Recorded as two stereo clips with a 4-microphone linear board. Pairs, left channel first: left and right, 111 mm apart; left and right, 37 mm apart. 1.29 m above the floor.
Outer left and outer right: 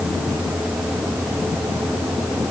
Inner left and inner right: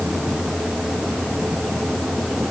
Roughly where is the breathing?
No breathing in this recording.